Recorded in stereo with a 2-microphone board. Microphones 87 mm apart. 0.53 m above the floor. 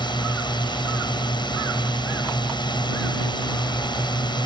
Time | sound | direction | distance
0.0 | a drone | 60° left (ahead or behind) | ?